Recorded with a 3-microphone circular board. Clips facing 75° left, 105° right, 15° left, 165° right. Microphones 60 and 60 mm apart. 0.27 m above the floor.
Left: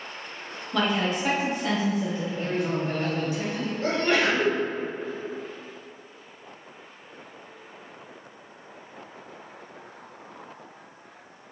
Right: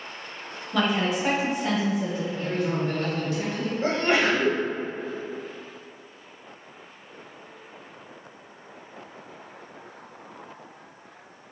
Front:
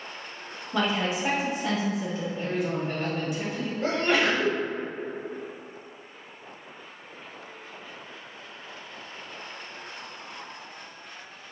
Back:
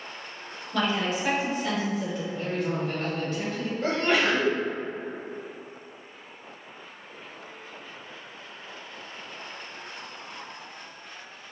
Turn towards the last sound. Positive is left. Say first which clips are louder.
# right 1 dB, even
turn(degrees=-75)